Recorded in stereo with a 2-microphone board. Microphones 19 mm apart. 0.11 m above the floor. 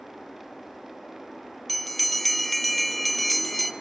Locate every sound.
1.7 s a bell: 5° left (ahead or behind), 0.8 m